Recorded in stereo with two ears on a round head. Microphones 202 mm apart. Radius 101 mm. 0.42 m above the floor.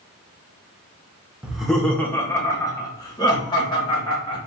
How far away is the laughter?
About 0.8 m.